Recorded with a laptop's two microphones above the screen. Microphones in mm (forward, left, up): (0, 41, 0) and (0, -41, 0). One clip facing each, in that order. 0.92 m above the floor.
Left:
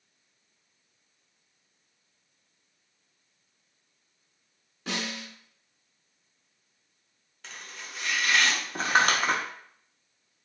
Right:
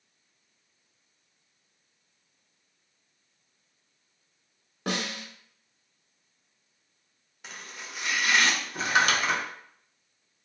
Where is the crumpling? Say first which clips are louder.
Left 1 dB; 40° left (ahead or behind), 0.8 m.